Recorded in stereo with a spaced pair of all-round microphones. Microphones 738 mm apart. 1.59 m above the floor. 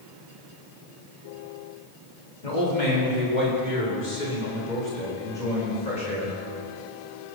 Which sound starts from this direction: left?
A man speaking, at 2.4 s.